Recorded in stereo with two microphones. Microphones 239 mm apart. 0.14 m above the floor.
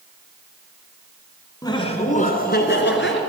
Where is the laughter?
15° left (ahead or behind), 1.1 m; by 3.2 s 55° left (ahead or behind), 1.7 m.